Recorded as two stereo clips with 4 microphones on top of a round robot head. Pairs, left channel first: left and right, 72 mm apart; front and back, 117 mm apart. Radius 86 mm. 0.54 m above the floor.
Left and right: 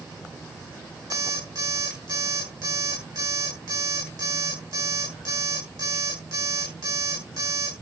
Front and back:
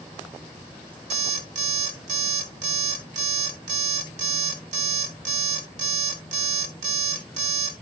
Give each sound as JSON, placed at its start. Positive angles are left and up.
{"t": 1.1, "sound": "an alarm clock", "azimuth_deg": -145, "distance_m": 2.5}